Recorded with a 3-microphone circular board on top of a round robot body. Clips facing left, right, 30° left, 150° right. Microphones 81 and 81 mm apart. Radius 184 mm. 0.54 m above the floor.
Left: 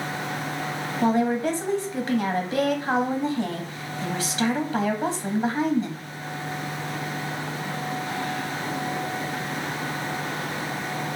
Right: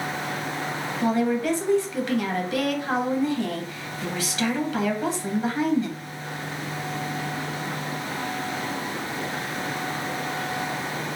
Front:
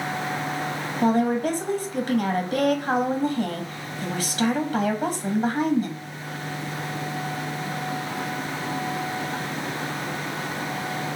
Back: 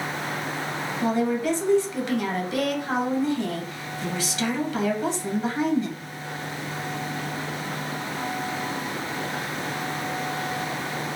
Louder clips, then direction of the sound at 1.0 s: Left 1 dB, front 3 dB; 40° left.